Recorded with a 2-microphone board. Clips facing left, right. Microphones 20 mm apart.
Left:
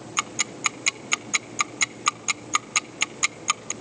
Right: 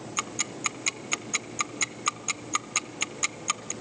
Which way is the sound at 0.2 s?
25° left (ahead or behind).